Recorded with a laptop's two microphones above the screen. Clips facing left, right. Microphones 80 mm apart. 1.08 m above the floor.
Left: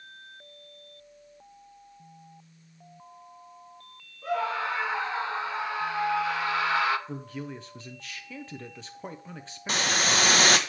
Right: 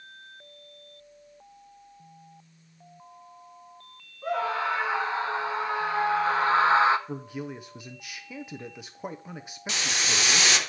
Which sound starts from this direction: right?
A scream, at 4.2 s.